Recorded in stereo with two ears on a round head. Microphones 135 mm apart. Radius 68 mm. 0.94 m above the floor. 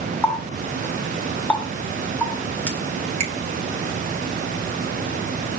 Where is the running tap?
10° left (ahead or behind), 1.9 m.